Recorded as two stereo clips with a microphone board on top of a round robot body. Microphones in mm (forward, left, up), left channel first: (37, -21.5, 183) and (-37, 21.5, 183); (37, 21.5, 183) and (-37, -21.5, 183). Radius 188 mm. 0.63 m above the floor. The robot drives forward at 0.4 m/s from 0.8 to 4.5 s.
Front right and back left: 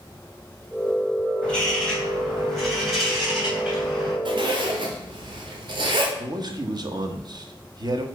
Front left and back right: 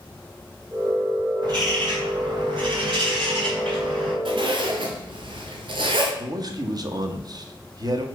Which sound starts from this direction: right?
A bird, at 1.4 s.